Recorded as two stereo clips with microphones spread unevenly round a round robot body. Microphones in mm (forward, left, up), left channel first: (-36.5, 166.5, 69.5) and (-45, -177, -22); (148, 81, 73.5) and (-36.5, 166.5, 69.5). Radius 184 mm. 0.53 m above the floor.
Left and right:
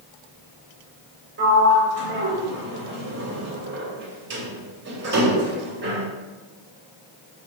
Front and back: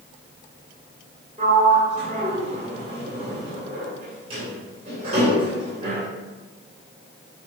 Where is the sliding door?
140° right, 3 m.